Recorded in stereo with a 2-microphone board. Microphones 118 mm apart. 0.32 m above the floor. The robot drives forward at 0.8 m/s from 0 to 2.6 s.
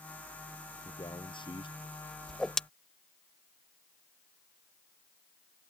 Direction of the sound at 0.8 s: 40° left (ahead or behind).